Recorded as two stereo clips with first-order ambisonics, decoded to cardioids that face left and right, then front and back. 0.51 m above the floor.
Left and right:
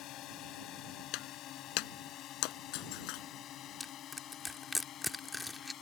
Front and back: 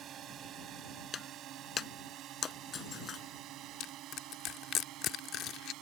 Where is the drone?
130° left; by 5.8 s 145° left.